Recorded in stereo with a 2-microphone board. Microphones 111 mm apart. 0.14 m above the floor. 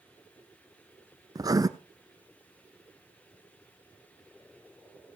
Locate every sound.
1.4 s writing: 35° right (ahead or behind), 0.7 m